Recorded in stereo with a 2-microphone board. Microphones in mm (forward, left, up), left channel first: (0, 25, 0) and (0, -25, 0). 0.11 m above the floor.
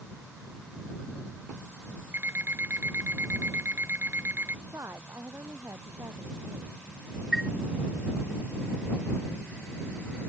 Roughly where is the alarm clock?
Right.